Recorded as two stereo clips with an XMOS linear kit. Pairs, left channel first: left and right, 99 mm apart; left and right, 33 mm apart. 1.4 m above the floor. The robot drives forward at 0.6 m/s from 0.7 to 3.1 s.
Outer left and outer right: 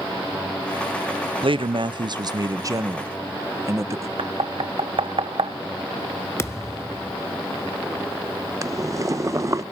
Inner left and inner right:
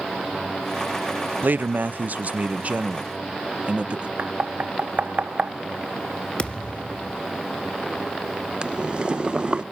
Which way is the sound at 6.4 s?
30° left (ahead or behind).